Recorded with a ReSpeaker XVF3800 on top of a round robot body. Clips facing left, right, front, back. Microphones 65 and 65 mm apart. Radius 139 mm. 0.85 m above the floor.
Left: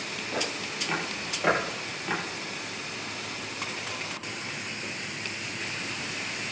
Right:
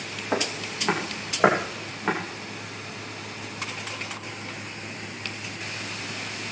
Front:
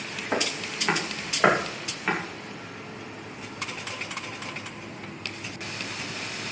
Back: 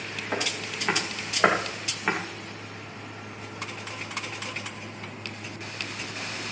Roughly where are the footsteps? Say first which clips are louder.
Right 6 dB, front 3 dB; right.